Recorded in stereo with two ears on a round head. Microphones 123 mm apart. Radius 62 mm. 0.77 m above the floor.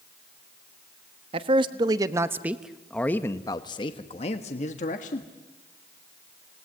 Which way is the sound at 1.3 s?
40° right (ahead or behind).